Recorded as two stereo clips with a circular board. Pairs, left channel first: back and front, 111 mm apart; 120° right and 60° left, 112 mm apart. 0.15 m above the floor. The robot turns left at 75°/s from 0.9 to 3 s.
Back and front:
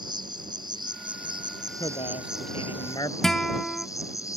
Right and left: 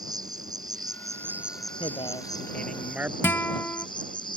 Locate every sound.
0.0 s an insect: 25° left; by 4.4 s 135° right
1.8 s a man speaking: 135° right; by 3.1 s 135° left
3.2 s a guitar: 105° right